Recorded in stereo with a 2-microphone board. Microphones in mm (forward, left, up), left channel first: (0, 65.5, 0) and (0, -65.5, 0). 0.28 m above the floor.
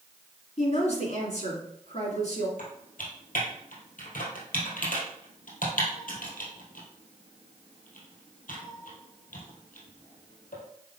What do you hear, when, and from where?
0.6 s a woman speaking: 55° left (ahead or behind), 2.5 m
2.6 s typing on a keyboard: 85° left, 2.5 m